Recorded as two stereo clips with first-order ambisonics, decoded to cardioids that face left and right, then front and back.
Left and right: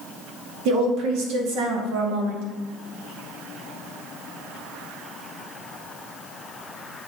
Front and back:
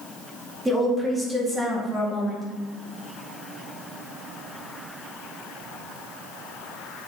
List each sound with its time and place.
0.7 s a woman speaking: 100° right, 1.8 m